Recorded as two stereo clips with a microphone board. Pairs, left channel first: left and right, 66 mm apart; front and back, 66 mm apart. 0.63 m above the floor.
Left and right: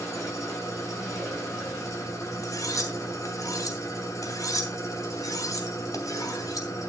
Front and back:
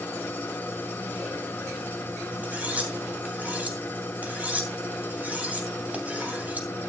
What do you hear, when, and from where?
0.0 s an engine running: 60° left, 2.5 m
2.4 s cutlery clinking: 115° left, 3 m